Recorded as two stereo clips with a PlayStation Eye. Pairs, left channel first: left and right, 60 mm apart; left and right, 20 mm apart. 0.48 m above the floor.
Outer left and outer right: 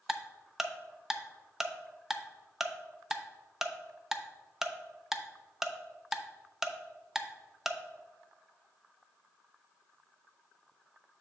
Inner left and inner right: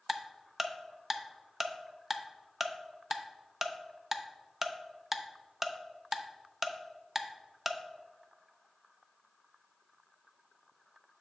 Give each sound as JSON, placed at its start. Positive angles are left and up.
{"t": 0.1, "sound": "ticking", "side_deg": -5, "distance_m": 0.5}